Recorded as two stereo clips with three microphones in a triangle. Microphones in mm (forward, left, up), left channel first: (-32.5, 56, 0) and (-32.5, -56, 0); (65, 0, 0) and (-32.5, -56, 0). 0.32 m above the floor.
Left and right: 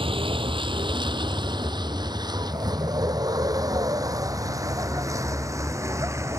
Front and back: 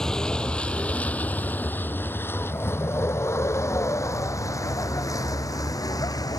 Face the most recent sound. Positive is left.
turn(degrees=-25)